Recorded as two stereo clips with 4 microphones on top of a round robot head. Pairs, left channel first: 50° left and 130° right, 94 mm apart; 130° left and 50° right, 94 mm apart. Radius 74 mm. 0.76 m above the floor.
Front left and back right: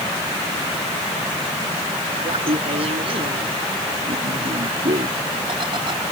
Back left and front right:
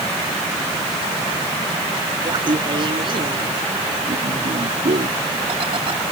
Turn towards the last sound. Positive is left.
turn(degrees=-85)